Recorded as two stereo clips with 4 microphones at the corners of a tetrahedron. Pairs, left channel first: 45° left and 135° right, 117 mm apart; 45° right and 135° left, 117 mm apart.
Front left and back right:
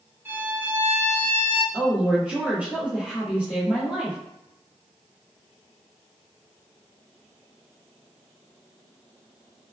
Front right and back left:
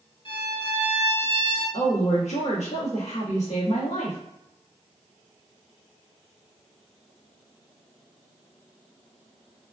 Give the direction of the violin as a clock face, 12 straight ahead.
2 o'clock.